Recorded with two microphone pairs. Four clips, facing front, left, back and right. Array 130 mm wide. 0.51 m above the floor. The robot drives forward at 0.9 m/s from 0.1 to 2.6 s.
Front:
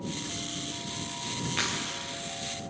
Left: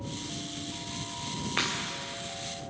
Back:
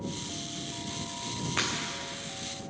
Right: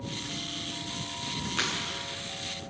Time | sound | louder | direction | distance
1.6 | breaking glass | left 1 dB, back 1 dB | 125° left | 5 m